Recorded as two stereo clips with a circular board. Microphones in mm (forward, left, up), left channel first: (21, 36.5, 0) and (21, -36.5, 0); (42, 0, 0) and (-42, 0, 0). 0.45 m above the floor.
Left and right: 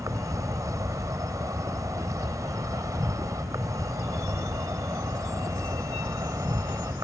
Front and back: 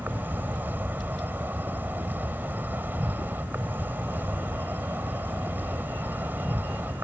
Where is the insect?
115° right.